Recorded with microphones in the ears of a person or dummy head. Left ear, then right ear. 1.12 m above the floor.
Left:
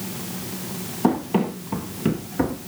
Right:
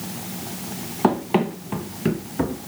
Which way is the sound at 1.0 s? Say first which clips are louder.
Right 2 dB; 45° right (ahead or behind).